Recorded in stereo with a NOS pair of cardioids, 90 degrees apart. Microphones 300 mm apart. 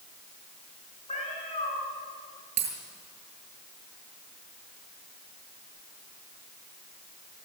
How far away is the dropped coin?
About 7 m.